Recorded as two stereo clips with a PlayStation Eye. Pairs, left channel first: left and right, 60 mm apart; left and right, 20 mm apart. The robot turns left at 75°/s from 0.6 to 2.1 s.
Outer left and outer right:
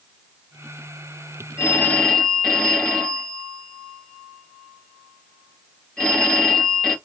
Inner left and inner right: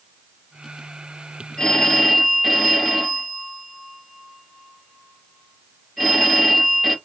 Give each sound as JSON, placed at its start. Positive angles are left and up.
{"t": 1.6, "sound": "a phone ringing", "azimuth_deg": 50, "distance_m": 2.5}